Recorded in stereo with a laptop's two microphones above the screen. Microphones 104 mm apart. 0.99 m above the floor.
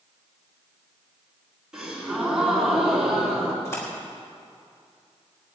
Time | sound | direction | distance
1.7 | a gasp | 5° right (ahead or behind) | 3 m
3.6 | a splash | 25° left (ahead or behind) | 3.5 m